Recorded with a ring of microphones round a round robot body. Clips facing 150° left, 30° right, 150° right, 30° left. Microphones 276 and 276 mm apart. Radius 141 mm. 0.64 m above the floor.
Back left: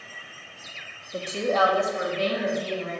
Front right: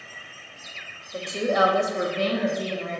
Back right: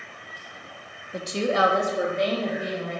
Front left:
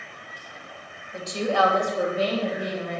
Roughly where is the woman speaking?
Behind right.